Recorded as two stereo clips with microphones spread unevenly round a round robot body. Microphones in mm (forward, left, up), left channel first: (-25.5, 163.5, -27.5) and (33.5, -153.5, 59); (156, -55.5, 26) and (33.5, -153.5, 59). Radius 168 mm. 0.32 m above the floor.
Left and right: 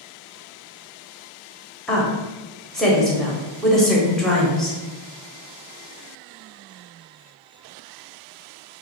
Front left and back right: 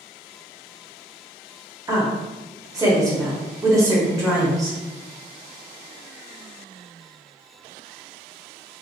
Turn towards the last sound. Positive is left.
turn(degrees=150)